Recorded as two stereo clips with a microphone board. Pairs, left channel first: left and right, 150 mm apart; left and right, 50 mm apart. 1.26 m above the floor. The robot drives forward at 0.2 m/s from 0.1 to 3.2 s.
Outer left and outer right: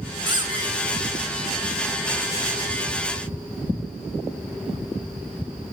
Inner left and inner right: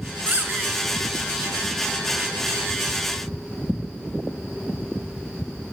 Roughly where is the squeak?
Right.